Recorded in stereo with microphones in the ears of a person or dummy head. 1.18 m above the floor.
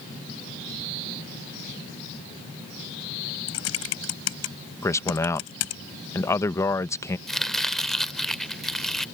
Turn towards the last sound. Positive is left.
turn(degrees=0)  # may be behind; listen again after turning